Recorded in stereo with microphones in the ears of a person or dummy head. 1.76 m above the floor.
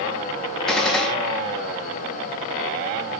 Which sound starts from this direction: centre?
A gunshot, at 0.7 s.